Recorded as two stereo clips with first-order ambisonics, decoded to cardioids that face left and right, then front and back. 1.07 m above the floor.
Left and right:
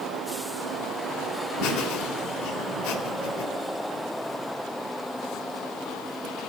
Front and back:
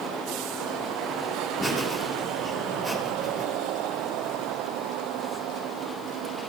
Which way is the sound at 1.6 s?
105° left.